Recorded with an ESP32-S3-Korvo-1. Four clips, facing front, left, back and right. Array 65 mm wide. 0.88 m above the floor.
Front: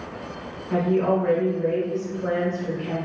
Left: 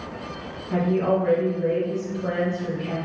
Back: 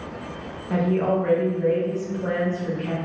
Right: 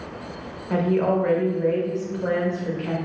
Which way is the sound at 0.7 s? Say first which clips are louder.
Right 1 dB, front 1 dB; 115° right.